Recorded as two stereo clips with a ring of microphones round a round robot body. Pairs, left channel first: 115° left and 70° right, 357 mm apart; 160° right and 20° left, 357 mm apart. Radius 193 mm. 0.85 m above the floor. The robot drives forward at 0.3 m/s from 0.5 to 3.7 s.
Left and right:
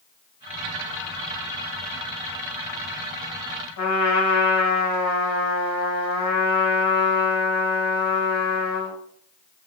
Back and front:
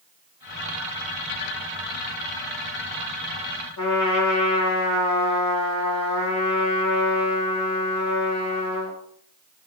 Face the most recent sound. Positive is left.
turn(degrees=155)